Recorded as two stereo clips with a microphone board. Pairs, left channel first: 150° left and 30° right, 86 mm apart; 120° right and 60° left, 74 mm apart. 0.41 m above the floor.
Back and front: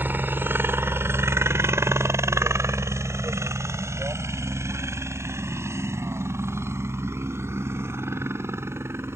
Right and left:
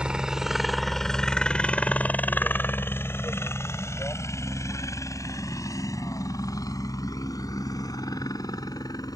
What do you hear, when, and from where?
0.0 s a helicopter: straight ahead; by 9.2 s 90° right